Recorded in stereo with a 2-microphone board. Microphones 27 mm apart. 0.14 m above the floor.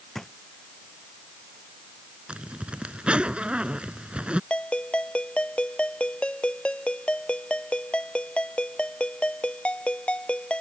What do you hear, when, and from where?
0.1 s a drawer: 15° left (ahead or behind)
2.3 s a zipper: 45° right (ahead or behind)
4.5 s a ringtone: 40° left (ahead or behind)